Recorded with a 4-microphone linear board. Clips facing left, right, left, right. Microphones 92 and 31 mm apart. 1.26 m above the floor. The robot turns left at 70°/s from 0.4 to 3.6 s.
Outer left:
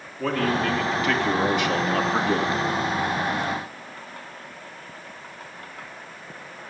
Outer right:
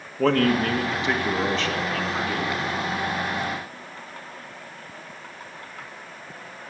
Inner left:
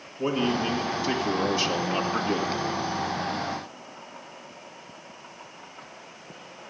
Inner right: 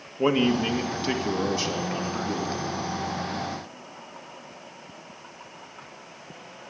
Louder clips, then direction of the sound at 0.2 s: Outer right 4 dB, inner right 3 dB; 110° right.